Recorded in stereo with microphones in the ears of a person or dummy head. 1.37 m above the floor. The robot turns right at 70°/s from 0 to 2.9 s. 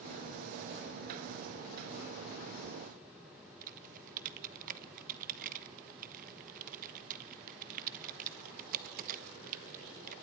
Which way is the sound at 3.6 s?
45° right (ahead or behind).